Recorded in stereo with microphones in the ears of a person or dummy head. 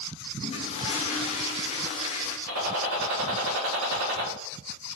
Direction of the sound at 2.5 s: 80° right.